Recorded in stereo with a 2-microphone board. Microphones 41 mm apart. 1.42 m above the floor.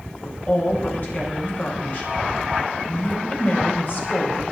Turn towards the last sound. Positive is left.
turn(degrees=45)  # may be behind; listen again after turning